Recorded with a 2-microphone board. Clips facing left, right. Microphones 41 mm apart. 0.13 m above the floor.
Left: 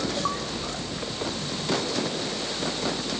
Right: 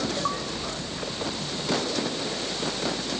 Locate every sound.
Only background noise.